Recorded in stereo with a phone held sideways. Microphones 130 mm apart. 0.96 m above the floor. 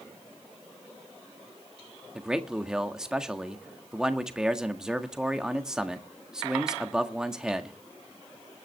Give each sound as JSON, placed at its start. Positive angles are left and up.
{"t": 2.1, "sound": "a man speaking", "side_deg": -5, "distance_m": 1.6}